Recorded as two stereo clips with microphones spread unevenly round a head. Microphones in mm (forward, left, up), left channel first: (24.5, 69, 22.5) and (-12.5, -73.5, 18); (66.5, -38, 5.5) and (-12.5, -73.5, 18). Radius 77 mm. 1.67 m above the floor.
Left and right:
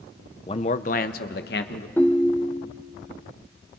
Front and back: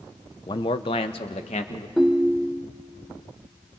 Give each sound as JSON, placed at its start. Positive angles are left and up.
{"t": 0.5, "sound": "a man speaking", "azimuth_deg": 45, "distance_m": 0.7}
{"t": 2.0, "sound": "a ringtone", "azimuth_deg": 135, "distance_m": 0.6}